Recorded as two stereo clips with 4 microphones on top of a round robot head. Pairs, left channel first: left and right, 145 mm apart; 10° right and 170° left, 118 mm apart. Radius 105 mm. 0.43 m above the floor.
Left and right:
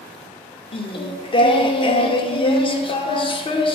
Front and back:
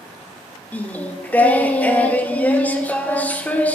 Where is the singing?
60° left, 0.6 m.